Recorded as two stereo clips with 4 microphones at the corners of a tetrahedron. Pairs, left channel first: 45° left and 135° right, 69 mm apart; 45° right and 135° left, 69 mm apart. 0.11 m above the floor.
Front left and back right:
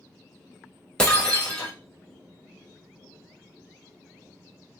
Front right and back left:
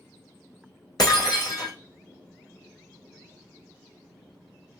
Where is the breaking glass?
30° right, 2.0 m.